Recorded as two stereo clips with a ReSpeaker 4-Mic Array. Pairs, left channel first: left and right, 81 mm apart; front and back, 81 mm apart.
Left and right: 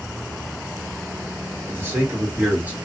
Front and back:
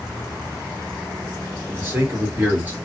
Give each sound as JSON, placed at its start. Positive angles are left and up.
{"t": 1.7, "sound": "a man speaking", "azimuth_deg": -130, "distance_m": 1.8}